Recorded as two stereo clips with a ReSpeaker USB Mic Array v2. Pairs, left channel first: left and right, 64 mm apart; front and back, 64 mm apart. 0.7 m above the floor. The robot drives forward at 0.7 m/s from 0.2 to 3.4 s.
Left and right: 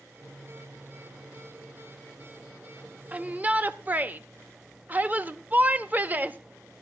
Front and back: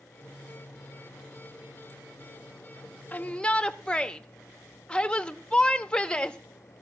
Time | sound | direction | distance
3.1 | a shout | 40° right | 1.0 m